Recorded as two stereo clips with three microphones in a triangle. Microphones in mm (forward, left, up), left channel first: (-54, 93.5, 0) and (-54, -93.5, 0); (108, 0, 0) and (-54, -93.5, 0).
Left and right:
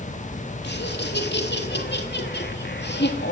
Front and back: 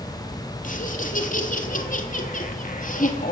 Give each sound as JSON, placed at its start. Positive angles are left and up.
{"t": 0.6, "sound": "laughter", "azimuth_deg": 70, "distance_m": 3.0}